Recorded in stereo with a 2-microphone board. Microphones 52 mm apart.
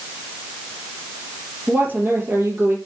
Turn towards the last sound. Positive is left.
turn(degrees=-45)  # may be behind; listen again after turning